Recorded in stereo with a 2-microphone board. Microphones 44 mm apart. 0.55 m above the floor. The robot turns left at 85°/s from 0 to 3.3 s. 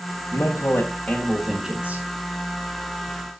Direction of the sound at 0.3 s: 85° left.